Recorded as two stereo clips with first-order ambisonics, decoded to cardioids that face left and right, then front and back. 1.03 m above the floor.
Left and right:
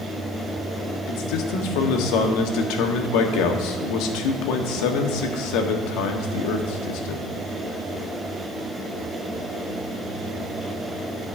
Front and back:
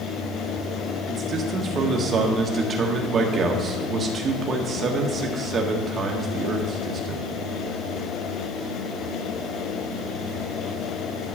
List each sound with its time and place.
1.1 s a man speaking: 115° left, 1.6 m